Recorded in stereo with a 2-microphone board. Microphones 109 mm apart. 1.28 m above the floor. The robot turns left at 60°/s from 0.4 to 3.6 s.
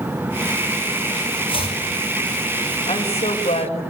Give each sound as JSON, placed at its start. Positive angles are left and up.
{"t": 1.5, "sound": "chopping", "side_deg": 55, "distance_m": 6.0}
{"t": 2.9, "sound": "a woman speaking", "azimuth_deg": 115, "distance_m": 6.0}